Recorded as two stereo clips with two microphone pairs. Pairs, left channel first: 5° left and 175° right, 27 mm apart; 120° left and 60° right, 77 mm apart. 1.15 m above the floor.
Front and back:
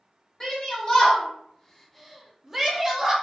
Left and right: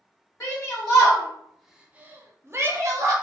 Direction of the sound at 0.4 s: 60° left.